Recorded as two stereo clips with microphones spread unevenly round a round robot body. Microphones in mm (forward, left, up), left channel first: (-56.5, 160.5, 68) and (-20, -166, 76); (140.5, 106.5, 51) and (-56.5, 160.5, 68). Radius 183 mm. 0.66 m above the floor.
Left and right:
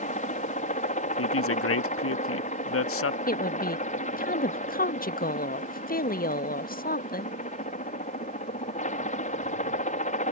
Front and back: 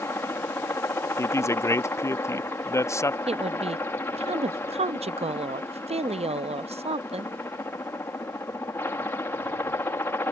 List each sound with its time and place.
0.0 s a helicopter: 50° left
1.2 s a woman speaking: 55° left
3.3 s a woman speaking: 125° left